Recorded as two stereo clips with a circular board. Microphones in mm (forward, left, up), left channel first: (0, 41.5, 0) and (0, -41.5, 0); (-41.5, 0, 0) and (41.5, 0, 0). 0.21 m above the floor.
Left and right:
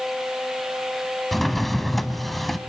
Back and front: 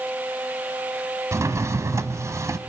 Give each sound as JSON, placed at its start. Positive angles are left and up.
{"t": 1.3, "sound": "a drawer", "azimuth_deg": 0, "distance_m": 0.7}